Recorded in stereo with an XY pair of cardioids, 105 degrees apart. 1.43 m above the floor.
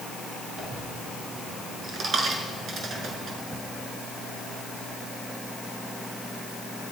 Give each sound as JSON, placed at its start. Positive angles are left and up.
{"t": 0.6, "sound": "a dropped coin", "azimuth_deg": -50, "distance_m": 6.0}